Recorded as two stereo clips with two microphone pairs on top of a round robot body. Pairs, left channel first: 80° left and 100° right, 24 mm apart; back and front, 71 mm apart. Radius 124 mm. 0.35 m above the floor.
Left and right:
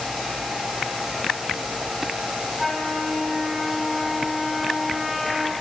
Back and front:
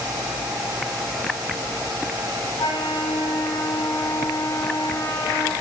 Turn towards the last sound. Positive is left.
turn(degrees=170)